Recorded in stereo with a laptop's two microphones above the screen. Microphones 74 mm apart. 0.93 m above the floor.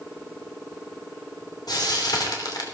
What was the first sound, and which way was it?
Frying, 65° left (ahead or behind).